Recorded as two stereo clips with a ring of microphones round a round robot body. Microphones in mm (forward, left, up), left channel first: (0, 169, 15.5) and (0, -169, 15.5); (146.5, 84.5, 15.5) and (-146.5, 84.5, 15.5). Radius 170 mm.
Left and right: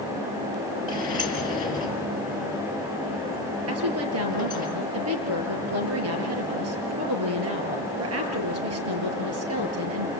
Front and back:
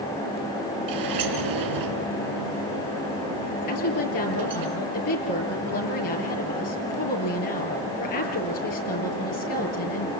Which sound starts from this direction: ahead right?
A woman speaking, at 3.7 s.